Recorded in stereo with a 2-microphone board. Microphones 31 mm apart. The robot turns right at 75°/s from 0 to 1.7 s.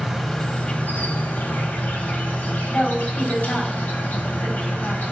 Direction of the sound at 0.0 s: 15° right.